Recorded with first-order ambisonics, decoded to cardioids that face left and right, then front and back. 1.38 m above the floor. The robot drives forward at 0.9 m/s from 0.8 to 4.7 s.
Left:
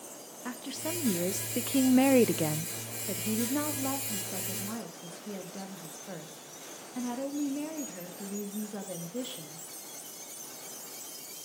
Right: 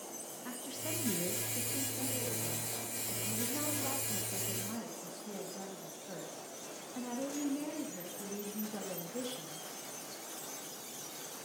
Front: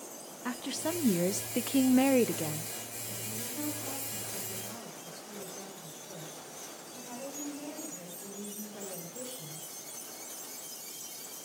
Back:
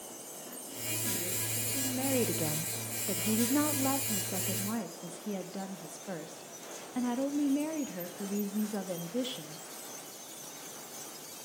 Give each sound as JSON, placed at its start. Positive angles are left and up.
{"t": 0.5, "sound": "a woman speaking", "azimuth_deg": 25, "distance_m": 1.6}